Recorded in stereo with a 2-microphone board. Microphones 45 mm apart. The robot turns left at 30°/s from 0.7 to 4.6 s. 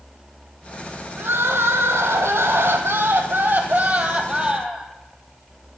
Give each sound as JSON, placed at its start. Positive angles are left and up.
{"t": 1.2, "sound": "crying", "azimuth_deg": -55, "distance_m": 0.8}